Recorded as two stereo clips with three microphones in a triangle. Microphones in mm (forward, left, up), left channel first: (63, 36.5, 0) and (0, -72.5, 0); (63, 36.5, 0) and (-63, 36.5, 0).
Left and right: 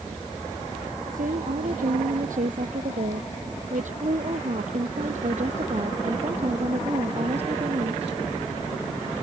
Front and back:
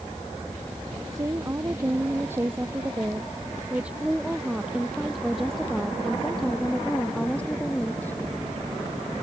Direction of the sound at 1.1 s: 115° right.